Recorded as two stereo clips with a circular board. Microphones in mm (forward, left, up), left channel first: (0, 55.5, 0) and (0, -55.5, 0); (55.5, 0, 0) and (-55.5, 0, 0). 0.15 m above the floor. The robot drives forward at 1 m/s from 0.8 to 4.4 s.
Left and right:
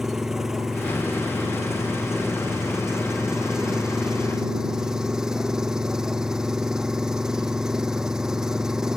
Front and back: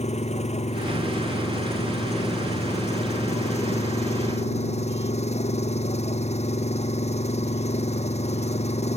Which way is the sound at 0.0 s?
5° right.